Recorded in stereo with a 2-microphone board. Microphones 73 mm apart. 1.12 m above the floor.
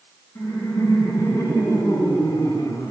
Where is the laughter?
70° left (ahead or behind), 6.5 m.